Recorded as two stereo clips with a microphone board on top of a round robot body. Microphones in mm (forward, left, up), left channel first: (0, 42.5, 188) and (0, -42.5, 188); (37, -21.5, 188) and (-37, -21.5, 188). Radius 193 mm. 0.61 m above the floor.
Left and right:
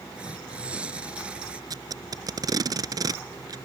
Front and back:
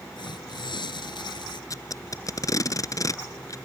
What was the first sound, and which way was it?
Tearing paper, 10° right.